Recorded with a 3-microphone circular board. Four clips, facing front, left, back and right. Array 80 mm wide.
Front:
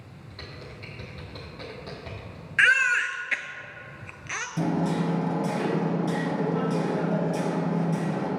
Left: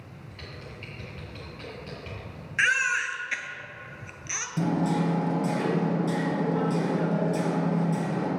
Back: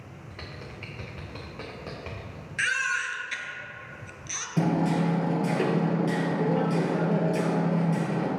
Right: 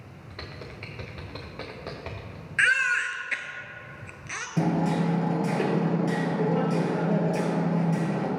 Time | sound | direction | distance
0.3 | typing on a keyboard | 105° right | 2 m
2.6 | a baby crying | 15° right | 0.7 m
4.6 | hammering | 140° right | 2 m